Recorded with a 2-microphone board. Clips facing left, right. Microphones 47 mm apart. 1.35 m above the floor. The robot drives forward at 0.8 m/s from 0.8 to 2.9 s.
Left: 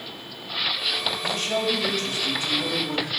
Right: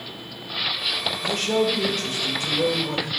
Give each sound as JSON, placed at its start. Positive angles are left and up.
{"t": 1.2, "sound": "a man speaking", "side_deg": -85, "distance_m": 4.0}